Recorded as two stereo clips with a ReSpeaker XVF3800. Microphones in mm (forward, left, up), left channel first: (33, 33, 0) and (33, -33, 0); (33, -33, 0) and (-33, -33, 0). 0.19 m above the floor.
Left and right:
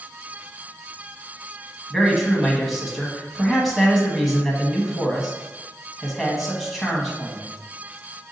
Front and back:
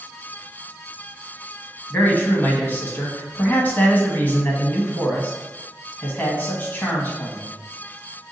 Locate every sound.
1.9 s a man speaking: straight ahead, 1.1 m